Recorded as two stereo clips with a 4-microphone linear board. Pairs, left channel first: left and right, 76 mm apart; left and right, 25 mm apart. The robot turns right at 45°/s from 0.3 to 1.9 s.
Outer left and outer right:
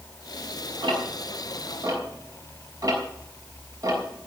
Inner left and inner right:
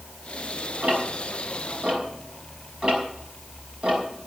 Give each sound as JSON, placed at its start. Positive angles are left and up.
{"t": 0.8, "sound": "ticking", "side_deg": -80, "distance_m": 6.5}